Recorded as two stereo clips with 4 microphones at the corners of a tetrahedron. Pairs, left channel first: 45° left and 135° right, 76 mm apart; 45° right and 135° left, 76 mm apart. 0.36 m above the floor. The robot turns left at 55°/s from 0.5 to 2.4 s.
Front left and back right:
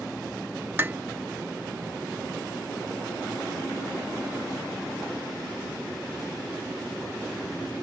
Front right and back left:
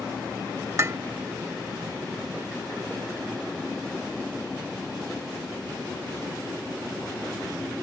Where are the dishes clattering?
175° left; by 1.0 s 160° left.